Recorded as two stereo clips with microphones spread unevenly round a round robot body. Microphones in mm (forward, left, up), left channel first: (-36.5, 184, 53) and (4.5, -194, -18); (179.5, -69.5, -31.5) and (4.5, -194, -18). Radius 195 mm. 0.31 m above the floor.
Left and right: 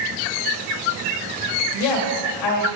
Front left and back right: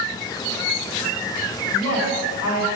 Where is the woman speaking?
70° left, 1.6 m.